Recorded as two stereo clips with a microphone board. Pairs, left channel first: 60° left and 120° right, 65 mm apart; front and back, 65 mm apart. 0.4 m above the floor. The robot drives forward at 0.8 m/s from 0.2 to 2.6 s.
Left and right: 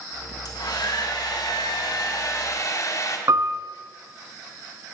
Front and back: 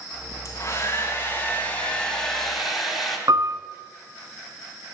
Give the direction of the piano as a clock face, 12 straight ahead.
5 o'clock.